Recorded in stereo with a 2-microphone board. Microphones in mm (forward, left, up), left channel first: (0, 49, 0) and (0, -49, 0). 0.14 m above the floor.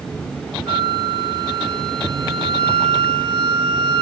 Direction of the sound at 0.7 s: 60° right (ahead or behind).